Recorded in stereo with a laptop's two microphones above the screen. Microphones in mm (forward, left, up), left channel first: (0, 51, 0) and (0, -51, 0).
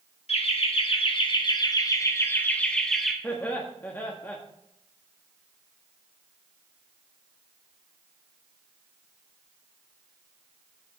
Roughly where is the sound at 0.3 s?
Left.